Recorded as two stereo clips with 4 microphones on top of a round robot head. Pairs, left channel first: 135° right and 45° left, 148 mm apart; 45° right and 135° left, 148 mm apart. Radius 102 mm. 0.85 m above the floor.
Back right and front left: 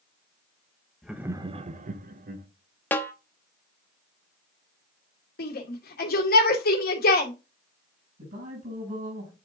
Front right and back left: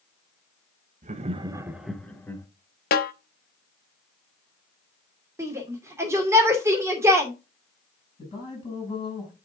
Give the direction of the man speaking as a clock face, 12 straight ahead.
12 o'clock.